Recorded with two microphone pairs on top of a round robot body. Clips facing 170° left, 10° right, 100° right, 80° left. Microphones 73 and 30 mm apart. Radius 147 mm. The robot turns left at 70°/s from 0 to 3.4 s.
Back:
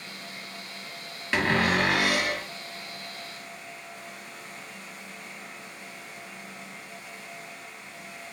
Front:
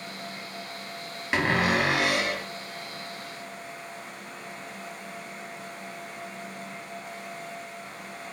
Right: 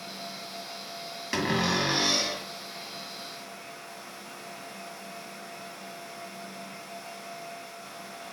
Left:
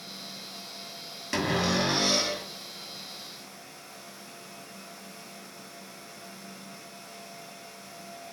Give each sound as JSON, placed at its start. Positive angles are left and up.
{"t": 1.3, "sound": "a cupboard door", "azimuth_deg": -45, "distance_m": 1.3}